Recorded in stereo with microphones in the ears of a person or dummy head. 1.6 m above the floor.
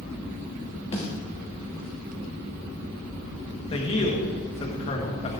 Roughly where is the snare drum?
Left.